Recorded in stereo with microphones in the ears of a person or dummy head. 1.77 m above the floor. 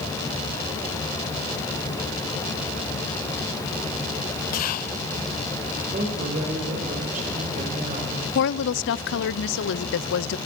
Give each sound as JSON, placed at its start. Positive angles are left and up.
{"t": 4.5, "sound": "whispering", "side_deg": 50, "distance_m": 0.5}
{"t": 5.9, "sound": "a woman speaking", "side_deg": -40, "distance_m": 6.5}
{"t": 8.3, "sound": "a woman speaking", "side_deg": 70, "distance_m": 0.8}